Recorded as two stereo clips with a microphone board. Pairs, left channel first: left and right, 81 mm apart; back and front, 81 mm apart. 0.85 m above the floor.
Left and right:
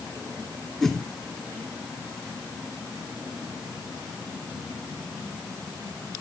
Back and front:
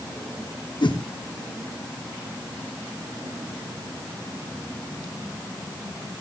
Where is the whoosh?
175° left, 2 m.